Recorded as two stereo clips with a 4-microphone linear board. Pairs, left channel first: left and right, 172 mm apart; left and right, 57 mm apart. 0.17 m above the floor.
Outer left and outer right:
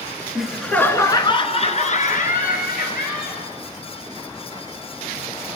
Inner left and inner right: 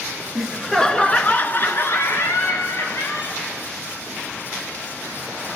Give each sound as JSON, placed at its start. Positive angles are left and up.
{"t": 0.3, "sound": "laughter", "side_deg": -5, "distance_m": 2.0}